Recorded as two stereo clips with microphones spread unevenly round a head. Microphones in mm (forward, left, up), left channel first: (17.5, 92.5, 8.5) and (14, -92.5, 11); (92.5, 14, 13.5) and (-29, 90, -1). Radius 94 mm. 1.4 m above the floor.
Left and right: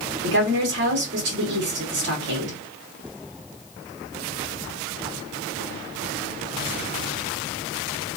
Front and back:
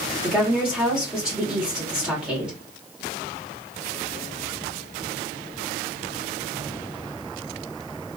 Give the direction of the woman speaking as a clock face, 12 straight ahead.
4 o'clock.